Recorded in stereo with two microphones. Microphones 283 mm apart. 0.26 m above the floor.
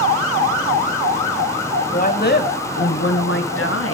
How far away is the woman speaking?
About 1.4 m.